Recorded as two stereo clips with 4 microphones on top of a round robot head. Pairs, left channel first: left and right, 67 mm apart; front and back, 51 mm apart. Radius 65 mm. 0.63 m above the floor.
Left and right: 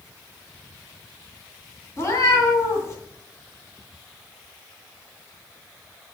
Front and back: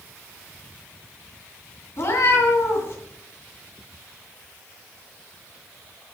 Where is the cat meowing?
40° left, 2.5 m.